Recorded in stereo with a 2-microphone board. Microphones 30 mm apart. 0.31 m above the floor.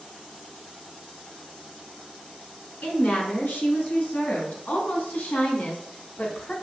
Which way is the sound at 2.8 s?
65° left (ahead or behind).